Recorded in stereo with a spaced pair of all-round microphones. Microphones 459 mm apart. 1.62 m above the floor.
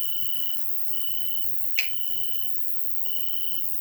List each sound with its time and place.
0.0 s an insect: centre (ahead or behind), 1.1 m
1.8 s a finger snap: 15° right (ahead or behind), 3.5 m